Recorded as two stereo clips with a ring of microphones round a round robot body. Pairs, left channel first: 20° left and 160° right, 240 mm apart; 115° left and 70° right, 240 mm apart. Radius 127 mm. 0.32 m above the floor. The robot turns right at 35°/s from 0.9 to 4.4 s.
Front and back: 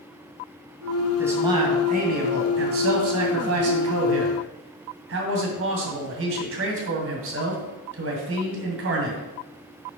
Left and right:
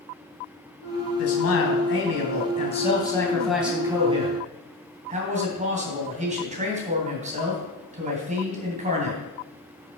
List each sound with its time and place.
1.2 s a man speaking: 120° left, 2 m; by 9.2 s 125° right, 2 m